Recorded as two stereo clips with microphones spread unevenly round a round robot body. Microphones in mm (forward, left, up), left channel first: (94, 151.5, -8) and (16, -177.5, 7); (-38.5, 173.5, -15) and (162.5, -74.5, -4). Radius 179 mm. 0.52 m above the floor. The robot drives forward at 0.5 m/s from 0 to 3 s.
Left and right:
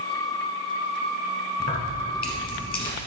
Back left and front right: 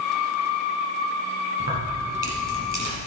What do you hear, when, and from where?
1.6 s keys jangling: 10° left, 4 m